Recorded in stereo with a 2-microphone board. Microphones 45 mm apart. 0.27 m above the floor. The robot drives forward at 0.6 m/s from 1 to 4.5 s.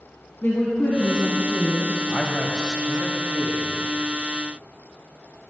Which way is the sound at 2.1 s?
15° left (ahead or behind).